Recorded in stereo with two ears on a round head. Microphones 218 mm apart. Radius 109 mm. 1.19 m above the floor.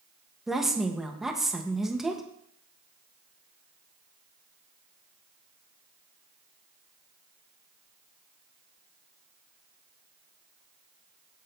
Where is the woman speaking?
Centre (ahead or behind), 1.1 m.